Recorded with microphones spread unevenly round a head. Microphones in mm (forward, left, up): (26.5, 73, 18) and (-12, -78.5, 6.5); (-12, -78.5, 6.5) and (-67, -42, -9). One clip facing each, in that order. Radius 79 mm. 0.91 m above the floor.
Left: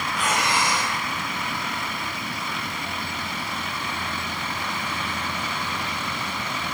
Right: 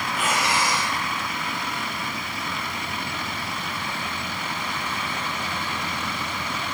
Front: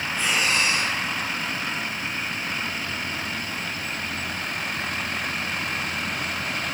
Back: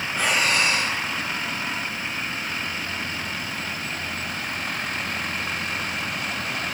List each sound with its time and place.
0.1 s breathing: 170° left, 3.5 m